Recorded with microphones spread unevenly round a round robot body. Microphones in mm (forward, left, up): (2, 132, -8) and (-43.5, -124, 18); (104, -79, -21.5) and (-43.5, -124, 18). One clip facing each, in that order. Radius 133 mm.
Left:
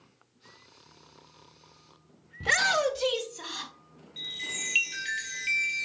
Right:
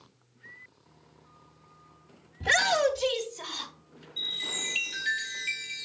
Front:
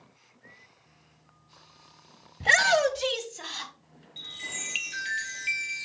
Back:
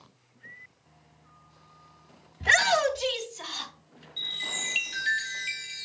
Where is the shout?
15° left, 1.9 m.